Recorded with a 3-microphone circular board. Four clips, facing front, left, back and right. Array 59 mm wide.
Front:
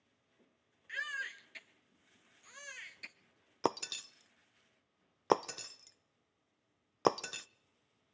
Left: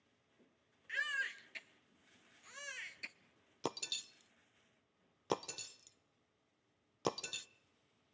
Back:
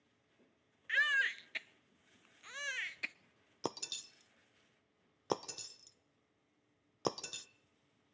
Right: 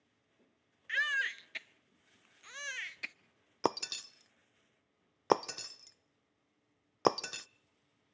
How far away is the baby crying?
About 0.7 m.